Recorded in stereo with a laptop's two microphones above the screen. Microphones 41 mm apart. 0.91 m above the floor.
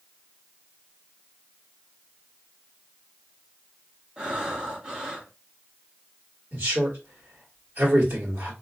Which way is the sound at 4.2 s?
25° right (ahead or behind).